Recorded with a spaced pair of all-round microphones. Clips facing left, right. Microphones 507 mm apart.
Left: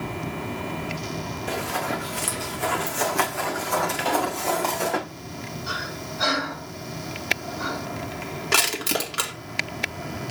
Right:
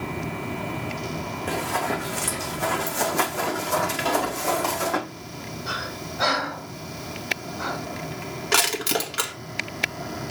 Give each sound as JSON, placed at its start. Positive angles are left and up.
{"t": 1.5, "sound": "running footsteps", "side_deg": -70, "distance_m": 5.0}
{"t": 4.0, "sound": "a pop", "side_deg": -65, "distance_m": 3.0}
{"t": 5.7, "sound": "breathing", "side_deg": -70, "distance_m": 6.5}
{"t": 8.5, "sound": "crushing", "side_deg": -5, "distance_m": 1.9}